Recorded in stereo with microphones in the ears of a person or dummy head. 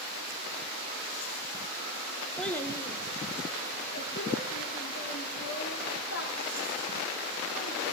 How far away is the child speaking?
About 0.6 m.